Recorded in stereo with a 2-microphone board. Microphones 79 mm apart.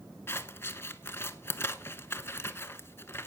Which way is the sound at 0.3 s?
30° left (ahead or behind).